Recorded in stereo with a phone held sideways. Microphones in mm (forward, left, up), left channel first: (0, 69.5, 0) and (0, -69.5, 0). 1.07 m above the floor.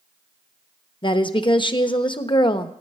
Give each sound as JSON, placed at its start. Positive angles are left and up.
{"t": 1.0, "sound": "a woman speaking", "side_deg": 35, "distance_m": 1.0}